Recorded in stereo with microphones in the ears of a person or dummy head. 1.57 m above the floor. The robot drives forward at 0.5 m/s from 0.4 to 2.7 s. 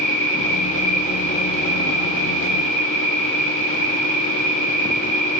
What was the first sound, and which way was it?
An insect, 60° left (ahead or behind).